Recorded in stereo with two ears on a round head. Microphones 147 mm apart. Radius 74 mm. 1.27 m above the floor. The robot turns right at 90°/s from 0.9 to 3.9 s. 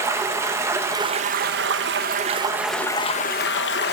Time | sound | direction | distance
0.0 | running water | 160° right | 0.9 m